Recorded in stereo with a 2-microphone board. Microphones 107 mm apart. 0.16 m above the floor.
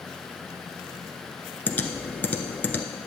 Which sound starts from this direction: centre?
Typing on a keyboard, at 1.7 s.